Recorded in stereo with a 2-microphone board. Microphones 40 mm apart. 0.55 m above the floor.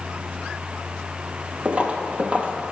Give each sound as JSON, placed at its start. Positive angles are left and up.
{"t": 1.6, "sound": "footsteps", "side_deg": -30, "distance_m": 0.6}